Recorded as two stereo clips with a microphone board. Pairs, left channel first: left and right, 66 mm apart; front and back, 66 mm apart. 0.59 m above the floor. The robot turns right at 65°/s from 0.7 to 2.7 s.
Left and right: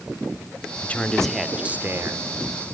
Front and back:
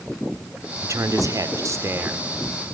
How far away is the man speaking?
About 2.0 m.